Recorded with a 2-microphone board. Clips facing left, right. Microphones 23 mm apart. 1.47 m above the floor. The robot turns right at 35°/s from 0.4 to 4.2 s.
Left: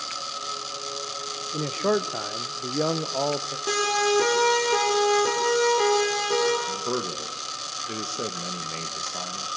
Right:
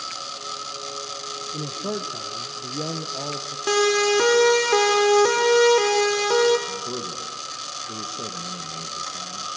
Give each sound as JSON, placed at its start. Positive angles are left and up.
{"t": 1.5, "sound": "a man speaking", "azimuth_deg": 50, "distance_m": 0.6}
{"t": 3.7, "sound": "a siren", "side_deg": -30, "distance_m": 4.0}
{"t": 6.7, "sound": "a man speaking", "side_deg": 45, "distance_m": 1.2}